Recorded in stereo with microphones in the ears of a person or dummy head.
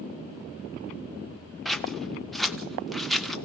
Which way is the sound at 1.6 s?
5° left (ahead or behind).